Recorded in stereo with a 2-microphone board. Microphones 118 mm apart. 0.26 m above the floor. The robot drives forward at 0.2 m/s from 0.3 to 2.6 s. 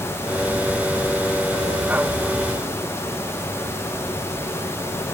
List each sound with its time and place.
Only background noise.